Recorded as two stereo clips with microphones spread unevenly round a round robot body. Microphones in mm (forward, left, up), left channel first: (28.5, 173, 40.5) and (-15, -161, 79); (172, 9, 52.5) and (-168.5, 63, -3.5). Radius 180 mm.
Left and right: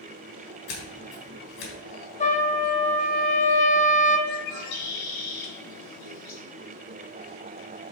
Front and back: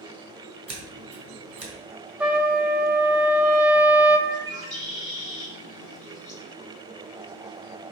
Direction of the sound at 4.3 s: 60° left.